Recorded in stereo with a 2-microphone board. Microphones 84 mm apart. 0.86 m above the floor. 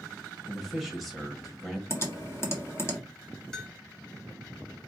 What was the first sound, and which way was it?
A man speaking, centre (ahead or behind).